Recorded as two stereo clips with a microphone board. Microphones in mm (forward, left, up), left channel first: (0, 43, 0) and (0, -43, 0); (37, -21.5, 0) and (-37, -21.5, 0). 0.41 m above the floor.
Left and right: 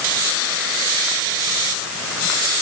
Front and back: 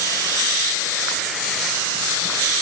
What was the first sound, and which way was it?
Only background noise.